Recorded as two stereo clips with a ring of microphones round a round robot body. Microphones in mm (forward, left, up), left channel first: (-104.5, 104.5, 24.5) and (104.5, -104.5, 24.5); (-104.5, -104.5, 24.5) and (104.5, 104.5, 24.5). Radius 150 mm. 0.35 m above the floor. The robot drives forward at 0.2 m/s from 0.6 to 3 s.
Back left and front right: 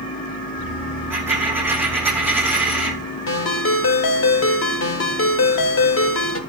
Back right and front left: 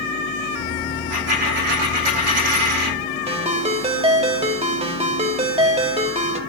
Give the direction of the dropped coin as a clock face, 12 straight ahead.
11 o'clock.